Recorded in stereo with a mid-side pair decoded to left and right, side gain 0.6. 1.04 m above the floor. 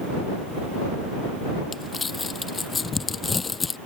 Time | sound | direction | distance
1.7 | crumpling | 25° left | ?